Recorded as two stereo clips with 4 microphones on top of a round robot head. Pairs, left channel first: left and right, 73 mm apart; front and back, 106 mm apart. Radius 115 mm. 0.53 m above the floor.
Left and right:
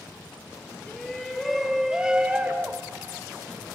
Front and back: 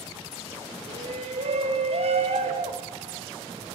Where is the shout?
170° left, 4.5 m; by 3.7 s 150° right, 5.5 m.